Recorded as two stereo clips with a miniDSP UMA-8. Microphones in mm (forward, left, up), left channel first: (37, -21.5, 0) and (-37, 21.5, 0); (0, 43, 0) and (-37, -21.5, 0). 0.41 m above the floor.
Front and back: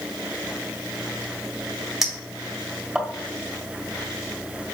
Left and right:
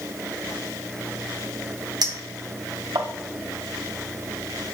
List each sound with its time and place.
2.0 s a clink: 125° right, 1.9 m